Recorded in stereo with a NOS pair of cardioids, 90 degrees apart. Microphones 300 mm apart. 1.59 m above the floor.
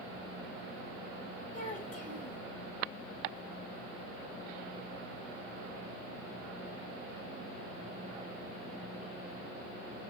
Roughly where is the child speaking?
Ahead left.